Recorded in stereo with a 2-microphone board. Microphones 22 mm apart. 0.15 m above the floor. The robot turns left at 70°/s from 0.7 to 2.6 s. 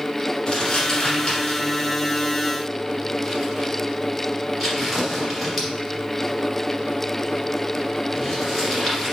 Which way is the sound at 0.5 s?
40° left (ahead or behind).